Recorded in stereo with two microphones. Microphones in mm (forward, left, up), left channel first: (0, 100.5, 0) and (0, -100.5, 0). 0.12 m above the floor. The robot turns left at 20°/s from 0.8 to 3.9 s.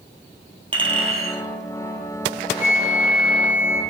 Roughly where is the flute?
Centre.